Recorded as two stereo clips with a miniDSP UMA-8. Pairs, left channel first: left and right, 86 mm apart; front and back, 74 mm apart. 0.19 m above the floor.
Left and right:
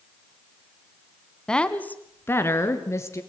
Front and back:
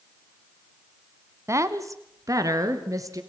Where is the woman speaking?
170° left, 1.4 m; by 3.2 s 145° left, 3 m.